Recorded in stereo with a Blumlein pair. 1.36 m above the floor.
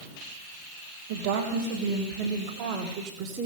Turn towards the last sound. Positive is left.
turn(degrees=-35)